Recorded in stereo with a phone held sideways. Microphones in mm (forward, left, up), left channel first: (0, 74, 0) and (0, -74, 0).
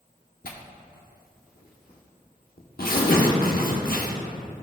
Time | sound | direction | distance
0.4 | tearing paper | 80° left | 1.0 m